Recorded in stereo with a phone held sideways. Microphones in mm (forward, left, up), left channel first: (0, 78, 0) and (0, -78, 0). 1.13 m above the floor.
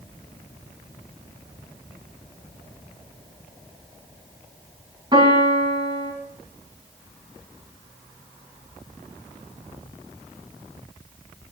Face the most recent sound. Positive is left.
turn(degrees=-30)  # may be behind; listen again after turning